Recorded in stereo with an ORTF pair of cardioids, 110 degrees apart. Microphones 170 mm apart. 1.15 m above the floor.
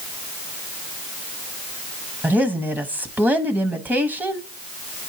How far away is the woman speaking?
About 1.1 m.